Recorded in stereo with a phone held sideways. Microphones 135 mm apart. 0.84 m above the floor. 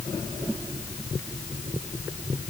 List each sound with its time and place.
Only background noise.